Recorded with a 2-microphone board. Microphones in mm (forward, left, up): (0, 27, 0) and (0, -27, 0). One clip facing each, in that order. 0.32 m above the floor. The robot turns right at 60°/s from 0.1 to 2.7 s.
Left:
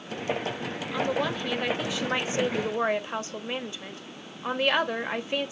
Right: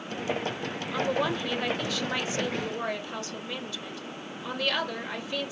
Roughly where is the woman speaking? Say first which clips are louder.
Even; centre.